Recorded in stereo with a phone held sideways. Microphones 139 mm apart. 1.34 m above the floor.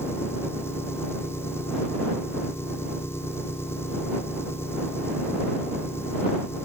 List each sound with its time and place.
0.0 s an engine running: 15° left (ahead or behind)